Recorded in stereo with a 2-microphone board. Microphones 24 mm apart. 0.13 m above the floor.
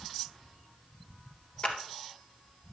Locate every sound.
1.6 s a clap: 40° left (ahead or behind), 1.8 m